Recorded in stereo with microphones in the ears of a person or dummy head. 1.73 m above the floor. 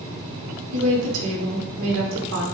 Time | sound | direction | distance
0.7 | a woman speaking | 75° right (ahead or behind) | 0.8 m